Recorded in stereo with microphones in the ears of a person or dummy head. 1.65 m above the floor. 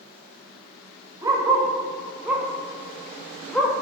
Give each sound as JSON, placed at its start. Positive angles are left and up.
{"t": 1.2, "sound": "a dog barking", "side_deg": -20, "distance_m": 3.0}